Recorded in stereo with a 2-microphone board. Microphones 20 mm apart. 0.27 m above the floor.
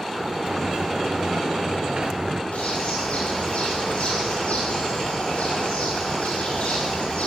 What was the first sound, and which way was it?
A sliding door, 50° right (ahead or behind).